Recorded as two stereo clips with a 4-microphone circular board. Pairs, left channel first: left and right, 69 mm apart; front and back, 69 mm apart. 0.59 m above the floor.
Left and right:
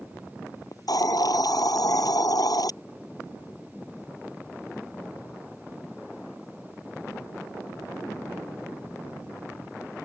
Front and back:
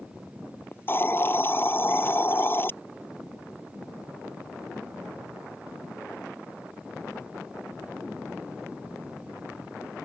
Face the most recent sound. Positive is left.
turn(degrees=60)